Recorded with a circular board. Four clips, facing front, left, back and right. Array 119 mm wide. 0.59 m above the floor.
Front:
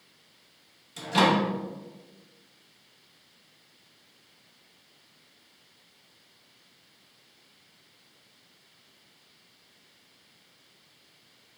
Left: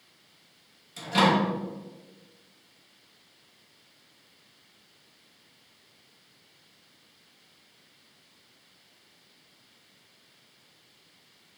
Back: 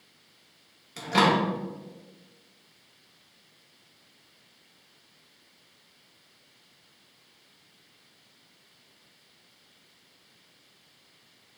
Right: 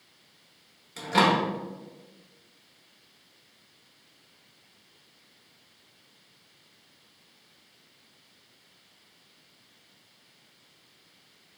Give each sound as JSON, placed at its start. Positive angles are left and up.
{"t": 1.0, "sound": "a microwave", "azimuth_deg": -145, "distance_m": 1.0}